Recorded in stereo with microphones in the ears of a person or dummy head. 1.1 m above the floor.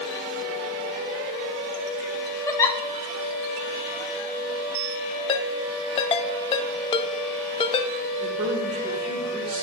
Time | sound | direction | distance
2.5 | a giggle | 15° left (ahead or behind) | 0.7 m
5.3 | a ringtone | 25° left (ahead or behind) | 0.5 m
8.2 | a woman speaking | 30° right (ahead or behind) | 1.9 m